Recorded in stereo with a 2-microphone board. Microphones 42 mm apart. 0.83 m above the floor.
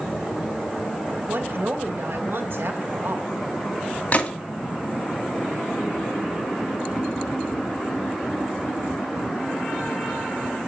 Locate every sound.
1.3 s a woman speaking: 60° right (ahead or behind), 2.5 m
4.1 s a gunshot: 35° left (ahead or behind), 1.9 m